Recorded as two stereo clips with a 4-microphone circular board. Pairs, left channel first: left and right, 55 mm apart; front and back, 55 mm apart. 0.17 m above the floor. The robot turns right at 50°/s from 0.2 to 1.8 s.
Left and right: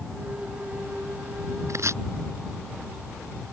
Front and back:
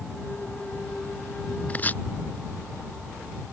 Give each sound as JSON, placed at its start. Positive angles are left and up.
{"t": 1.7, "sound": "chopping", "azimuth_deg": -65}